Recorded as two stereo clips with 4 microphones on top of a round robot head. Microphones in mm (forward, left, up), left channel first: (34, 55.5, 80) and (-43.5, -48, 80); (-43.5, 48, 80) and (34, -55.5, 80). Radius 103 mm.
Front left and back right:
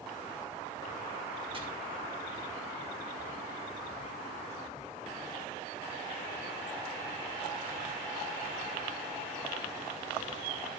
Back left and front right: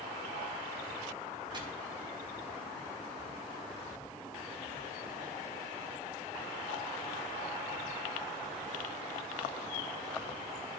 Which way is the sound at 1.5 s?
95° right.